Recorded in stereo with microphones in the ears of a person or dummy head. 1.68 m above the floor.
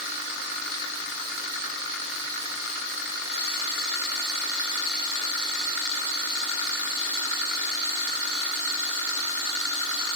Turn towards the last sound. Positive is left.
No sound to turn to.